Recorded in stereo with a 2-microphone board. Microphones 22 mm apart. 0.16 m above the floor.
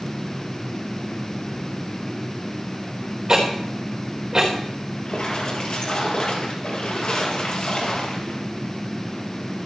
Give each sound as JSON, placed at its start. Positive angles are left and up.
{"t": 3.3, "sound": "ticking", "side_deg": -30, "distance_m": 4.0}
{"t": 5.0, "sound": "a splash", "side_deg": 55, "distance_m": 4.0}